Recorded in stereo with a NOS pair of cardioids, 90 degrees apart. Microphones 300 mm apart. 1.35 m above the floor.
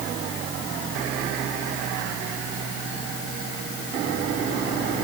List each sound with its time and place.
Only background noise.